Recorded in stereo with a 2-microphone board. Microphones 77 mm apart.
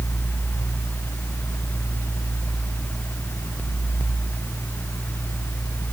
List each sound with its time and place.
Only background noise.